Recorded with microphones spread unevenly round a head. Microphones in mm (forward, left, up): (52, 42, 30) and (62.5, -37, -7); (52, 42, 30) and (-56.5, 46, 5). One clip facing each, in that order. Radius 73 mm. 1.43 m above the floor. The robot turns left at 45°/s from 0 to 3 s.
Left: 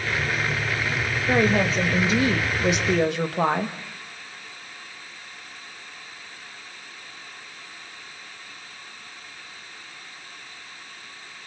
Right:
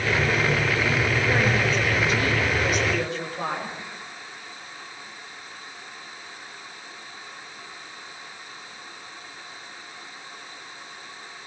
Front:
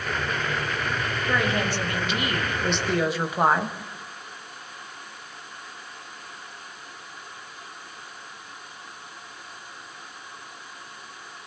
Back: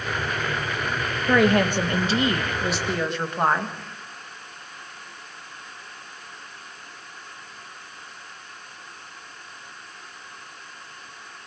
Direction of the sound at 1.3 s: 160° left.